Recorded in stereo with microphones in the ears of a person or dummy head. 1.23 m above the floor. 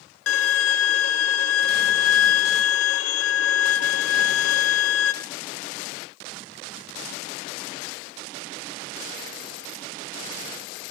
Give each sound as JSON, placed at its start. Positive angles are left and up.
{"t": 0.3, "sound": "a violin", "side_deg": 80, "distance_m": 0.7}